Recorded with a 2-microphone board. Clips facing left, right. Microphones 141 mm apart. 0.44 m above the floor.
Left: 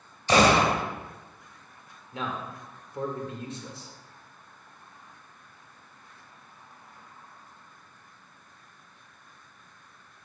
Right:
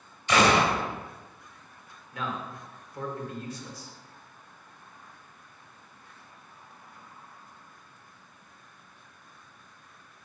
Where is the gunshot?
35° left (ahead or behind), 1.0 m.